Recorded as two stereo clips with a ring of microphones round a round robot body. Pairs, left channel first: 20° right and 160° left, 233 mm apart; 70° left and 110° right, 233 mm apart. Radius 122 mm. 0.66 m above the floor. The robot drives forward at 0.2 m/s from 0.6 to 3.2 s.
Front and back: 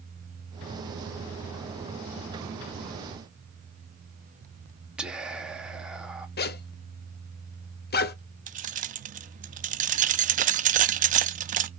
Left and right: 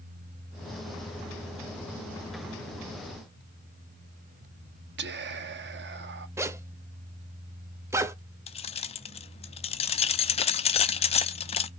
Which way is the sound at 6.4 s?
40° right.